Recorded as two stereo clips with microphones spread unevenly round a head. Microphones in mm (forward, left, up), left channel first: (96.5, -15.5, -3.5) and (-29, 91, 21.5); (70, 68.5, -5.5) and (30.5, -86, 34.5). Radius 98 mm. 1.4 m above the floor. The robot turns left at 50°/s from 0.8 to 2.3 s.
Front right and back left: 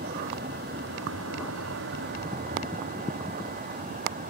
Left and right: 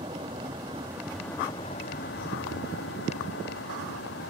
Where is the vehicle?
175° right; by 4.3 s 105° left.